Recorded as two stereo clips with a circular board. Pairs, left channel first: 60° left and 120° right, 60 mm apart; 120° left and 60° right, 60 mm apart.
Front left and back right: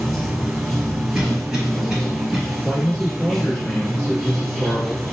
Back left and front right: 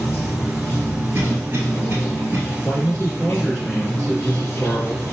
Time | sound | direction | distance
0.0 | running water | 150° left | 1.0 m
1.1 | a cough | 45° right | 1.4 m
2.6 | a man speaking | 40° left | 1.5 m